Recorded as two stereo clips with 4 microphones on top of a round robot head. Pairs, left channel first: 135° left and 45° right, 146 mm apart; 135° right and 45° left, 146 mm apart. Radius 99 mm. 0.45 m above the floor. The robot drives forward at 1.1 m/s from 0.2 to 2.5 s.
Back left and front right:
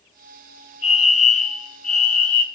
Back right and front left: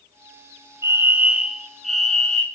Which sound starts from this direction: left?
A fire alarm, at 0.8 s.